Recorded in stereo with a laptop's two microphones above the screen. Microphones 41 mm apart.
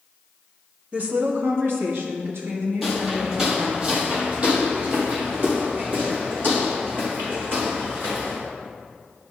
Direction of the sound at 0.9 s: 30° right (ahead or behind).